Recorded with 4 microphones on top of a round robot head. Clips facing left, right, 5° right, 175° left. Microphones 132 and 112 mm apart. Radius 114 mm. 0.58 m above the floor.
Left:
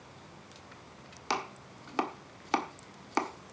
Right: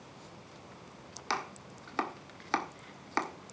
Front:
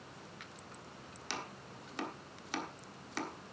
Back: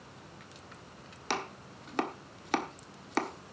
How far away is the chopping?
About 1.4 m.